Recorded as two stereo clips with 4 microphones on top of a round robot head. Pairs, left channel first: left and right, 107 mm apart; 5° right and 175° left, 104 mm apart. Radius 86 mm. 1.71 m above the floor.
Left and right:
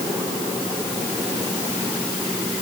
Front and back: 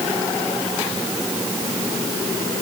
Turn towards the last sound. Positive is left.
No sound to turn to.